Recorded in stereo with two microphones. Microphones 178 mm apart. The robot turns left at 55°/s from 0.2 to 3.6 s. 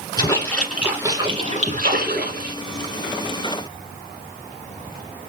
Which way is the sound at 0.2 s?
25° left.